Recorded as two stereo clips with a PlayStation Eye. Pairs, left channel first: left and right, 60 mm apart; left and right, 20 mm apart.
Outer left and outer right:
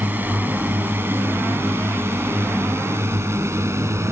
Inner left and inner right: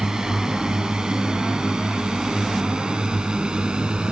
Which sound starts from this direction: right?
A drone, at 0.0 s.